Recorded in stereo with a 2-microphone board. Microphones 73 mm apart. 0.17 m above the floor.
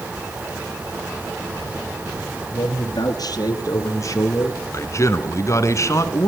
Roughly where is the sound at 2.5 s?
Left.